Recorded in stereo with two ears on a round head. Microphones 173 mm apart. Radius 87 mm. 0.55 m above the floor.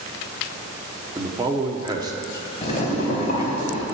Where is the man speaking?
20° right (ahead or behind), 0.9 m.